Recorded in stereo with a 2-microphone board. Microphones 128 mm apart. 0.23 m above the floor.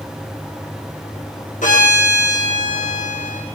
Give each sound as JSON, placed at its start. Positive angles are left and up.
{"t": 1.6, "sound": "a violin", "side_deg": 85, "distance_m": 8.0}